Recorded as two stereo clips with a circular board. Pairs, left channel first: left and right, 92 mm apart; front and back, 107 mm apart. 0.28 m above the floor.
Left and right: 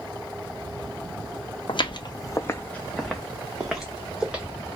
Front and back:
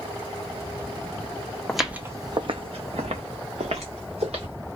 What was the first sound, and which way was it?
Footsteps, 85° left.